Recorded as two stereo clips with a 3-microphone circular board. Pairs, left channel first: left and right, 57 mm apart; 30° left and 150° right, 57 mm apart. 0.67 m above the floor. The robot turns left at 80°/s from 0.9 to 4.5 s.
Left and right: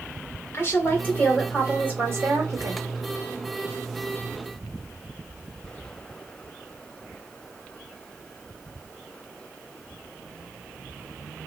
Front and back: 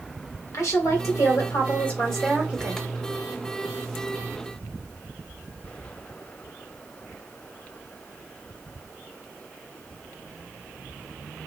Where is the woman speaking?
50° left, 1.6 m; by 2.8 s 105° right, 1.6 m.